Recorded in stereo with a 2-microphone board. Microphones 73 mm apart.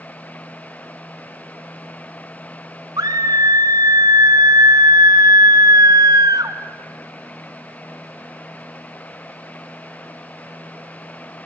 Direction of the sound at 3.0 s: 60° right (ahead or behind).